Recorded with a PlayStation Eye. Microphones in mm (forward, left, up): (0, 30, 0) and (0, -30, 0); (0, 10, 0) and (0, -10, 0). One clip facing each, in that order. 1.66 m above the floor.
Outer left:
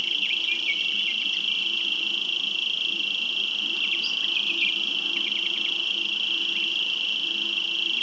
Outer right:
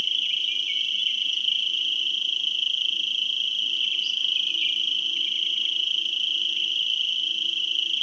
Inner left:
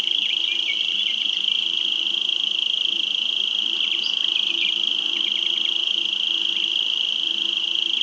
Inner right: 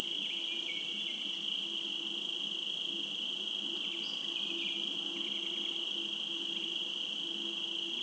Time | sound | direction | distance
0.0 | an insect | 60° left (ahead or behind) | 1.0 m